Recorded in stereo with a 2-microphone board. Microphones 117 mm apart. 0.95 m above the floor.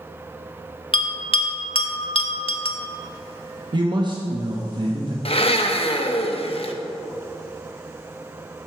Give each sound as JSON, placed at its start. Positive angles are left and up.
{"t": 0.9, "sound": "a bell", "side_deg": 55, "distance_m": 0.8}
{"t": 3.7, "sound": "a man speaking", "side_deg": -45, "distance_m": 0.9}
{"t": 5.2, "sound": "a blender", "side_deg": 60, "distance_m": 0.7}